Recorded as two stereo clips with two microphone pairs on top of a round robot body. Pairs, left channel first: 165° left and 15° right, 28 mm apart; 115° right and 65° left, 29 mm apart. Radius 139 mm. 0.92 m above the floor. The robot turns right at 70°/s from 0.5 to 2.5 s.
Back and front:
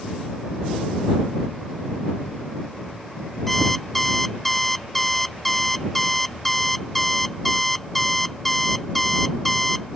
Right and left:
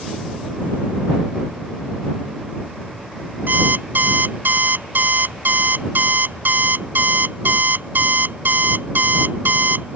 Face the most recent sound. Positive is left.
turn(degrees=80)